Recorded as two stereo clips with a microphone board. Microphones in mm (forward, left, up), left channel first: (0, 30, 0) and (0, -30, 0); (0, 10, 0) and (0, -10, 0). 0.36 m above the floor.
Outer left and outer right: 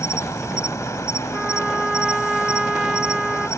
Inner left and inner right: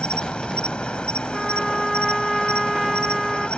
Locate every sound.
0.0 s an insect: 60° left (ahead or behind)
1.3 s a trumpet: 10° right (ahead or behind)